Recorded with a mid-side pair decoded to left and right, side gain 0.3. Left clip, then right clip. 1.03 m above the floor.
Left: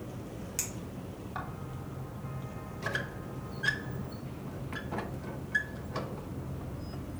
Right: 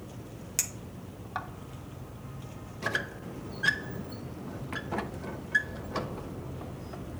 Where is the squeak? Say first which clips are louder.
Right 4 dB; 45° right, 0.7 m.